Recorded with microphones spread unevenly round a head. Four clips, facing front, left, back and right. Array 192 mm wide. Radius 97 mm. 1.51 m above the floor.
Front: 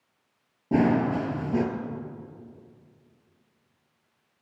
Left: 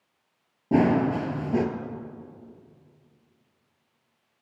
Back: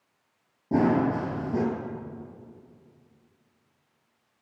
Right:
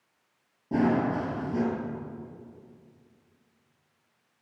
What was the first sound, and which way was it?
Running footsteps, 80° left.